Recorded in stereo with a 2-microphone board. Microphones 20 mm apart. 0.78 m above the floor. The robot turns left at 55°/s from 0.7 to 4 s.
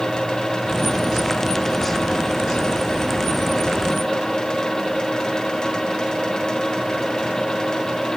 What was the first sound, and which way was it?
Only background noise.